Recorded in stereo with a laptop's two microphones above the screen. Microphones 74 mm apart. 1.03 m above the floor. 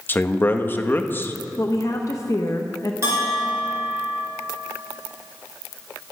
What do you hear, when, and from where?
0.1 s a man speaking: 30° left (ahead or behind), 1.0 m
1.6 s a woman speaking: 45° left (ahead or behind), 0.7 m
3.0 s a bell: 40° right (ahead or behind), 3 m